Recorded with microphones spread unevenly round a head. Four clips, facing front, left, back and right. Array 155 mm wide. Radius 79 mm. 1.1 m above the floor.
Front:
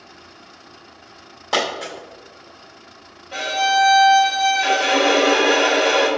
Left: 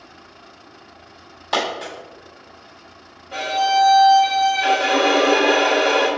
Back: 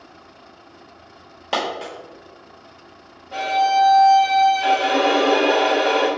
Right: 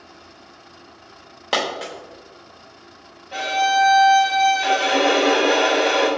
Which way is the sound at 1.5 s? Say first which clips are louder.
Left 1 dB, front 1 dB; 110° right.